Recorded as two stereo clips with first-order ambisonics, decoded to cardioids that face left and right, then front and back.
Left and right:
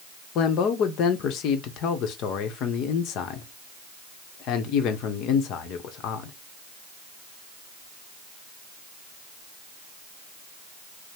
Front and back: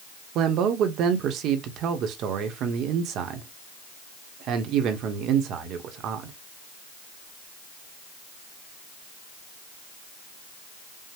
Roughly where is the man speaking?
Behind left.